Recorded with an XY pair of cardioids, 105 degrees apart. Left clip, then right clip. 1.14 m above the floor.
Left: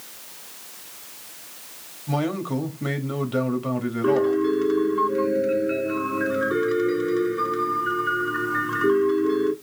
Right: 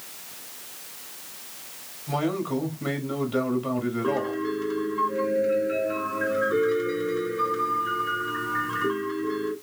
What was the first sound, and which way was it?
A man speaking, 25° left.